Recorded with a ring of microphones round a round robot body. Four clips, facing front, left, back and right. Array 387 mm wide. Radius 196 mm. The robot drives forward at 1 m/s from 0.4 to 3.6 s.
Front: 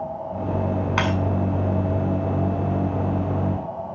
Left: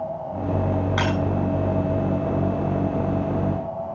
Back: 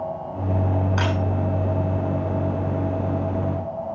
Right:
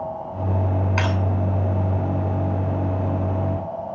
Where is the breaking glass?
10° right, 8.5 m.